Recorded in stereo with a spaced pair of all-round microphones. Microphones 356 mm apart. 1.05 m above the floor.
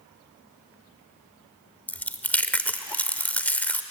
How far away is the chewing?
About 0.9 m.